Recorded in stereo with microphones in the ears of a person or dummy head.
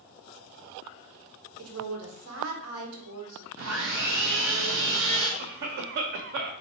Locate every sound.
1.6 s a woman speaking: 80° right, 1.2 m
3.6 s sawing: 80° right, 1.2 m
5.4 s a cough: 50° right (ahead or behind), 0.8 m